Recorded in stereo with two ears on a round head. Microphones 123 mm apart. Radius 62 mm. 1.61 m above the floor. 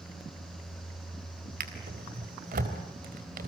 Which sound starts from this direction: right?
A drawer, at 1.6 s.